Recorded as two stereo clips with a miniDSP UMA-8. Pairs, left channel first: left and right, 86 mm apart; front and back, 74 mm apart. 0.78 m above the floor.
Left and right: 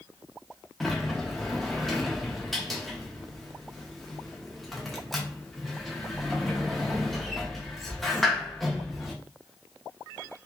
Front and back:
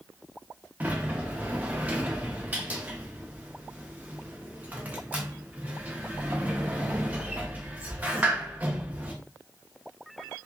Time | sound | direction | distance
0.8 | a sliding door | 175° left | 0.6 m